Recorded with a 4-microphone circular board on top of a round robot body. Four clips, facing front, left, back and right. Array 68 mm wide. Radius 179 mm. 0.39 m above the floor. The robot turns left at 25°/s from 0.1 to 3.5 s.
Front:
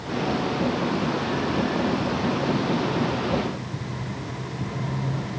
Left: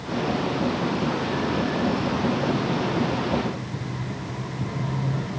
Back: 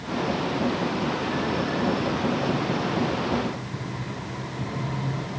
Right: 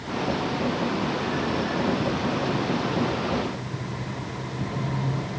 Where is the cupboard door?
No cupboard door in this recording.